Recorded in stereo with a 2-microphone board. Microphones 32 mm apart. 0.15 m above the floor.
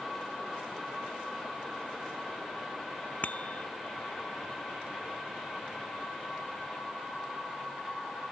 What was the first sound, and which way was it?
A bicycle bell, 50° left (ahead or behind).